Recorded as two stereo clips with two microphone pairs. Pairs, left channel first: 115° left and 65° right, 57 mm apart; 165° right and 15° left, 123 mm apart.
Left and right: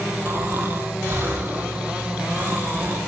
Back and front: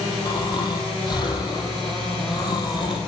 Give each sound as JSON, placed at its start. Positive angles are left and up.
{"t": 0.2, "sound": "snoring", "azimuth_deg": -110, "distance_m": 2.5}